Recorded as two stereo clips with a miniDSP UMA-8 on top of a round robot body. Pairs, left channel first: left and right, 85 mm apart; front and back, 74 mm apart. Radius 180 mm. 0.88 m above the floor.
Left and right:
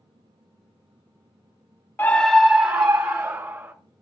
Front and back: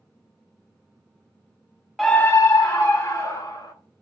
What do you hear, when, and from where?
2.0 s a scream: 90° left, 0.7 m; by 3.7 s 20° right, 2.5 m